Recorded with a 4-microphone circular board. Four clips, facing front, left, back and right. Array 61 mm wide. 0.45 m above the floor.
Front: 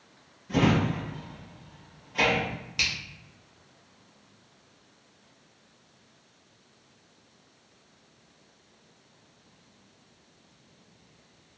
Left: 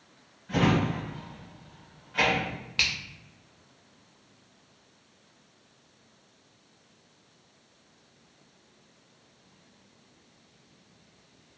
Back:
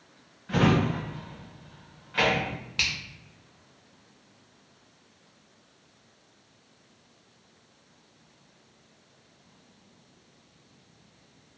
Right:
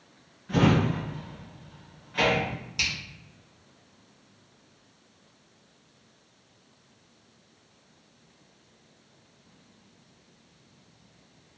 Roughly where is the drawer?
Behind.